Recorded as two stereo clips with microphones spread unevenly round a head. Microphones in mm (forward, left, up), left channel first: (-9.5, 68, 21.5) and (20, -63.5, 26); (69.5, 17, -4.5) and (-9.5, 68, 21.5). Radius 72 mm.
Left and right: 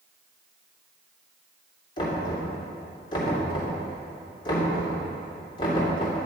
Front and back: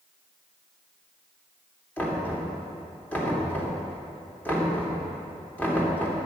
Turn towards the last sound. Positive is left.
turn(degrees=45)